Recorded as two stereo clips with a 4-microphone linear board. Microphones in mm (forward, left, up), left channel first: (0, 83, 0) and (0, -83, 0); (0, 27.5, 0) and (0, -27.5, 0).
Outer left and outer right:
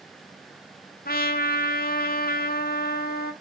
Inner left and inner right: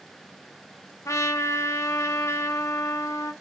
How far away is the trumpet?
About 0.7 m.